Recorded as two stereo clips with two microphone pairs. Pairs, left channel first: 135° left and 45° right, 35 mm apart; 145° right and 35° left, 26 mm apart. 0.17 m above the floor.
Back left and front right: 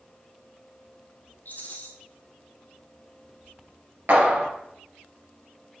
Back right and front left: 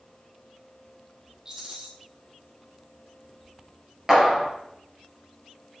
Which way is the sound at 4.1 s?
35° right.